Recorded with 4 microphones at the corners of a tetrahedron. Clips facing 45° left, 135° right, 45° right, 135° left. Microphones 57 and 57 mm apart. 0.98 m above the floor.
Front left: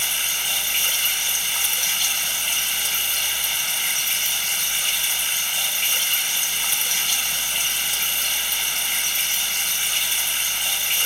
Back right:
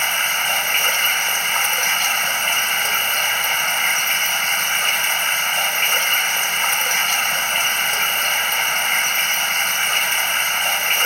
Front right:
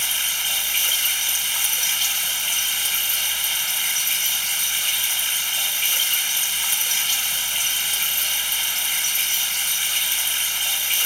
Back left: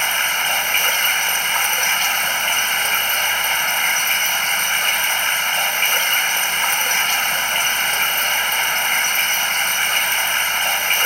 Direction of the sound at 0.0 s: Straight behind.